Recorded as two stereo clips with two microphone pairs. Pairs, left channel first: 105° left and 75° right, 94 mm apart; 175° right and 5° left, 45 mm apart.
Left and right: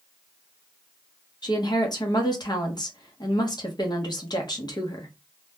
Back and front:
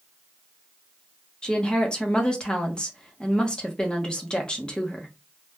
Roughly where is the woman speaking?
Behind left.